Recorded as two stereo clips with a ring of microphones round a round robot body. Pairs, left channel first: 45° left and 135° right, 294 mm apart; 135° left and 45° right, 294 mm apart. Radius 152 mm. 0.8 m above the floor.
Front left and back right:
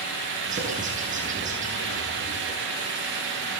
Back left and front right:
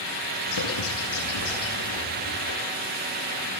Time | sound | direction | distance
0.5 | a bird | 160° left | 8 m